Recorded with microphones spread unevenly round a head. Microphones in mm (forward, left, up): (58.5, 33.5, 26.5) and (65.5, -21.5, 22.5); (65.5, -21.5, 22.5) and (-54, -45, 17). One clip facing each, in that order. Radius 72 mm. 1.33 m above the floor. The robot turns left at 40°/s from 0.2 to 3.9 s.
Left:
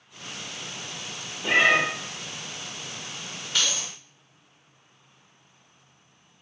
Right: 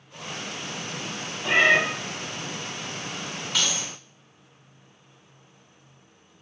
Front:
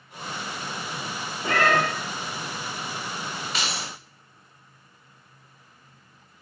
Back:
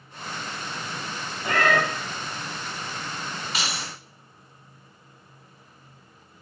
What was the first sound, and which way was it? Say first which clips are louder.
A cat meowing: right 1 dB, even; 35° left.